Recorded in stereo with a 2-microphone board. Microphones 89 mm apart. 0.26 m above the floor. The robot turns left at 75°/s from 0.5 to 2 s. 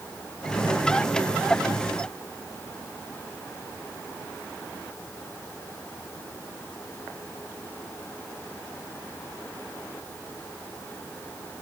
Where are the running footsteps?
No running footsteps in this recording.